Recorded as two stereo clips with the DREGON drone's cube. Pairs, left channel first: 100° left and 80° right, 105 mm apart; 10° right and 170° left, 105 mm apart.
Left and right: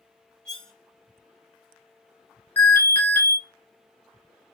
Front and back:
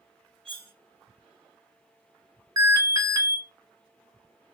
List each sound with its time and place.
0.5 s cutlery clinking: straight behind, 1.6 m
2.6 s an alarm: 155° left, 1.8 m